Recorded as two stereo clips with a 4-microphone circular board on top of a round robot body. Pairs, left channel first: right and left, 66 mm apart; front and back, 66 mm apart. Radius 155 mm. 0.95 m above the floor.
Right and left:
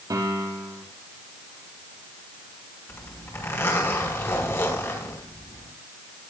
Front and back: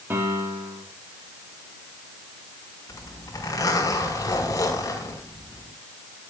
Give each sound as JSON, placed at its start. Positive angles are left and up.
{"t": 0.1, "sound": "a piano", "azimuth_deg": 120, "distance_m": 4.5}
{"t": 2.9, "sound": "a zipper", "azimuth_deg": -40, "distance_m": 4.5}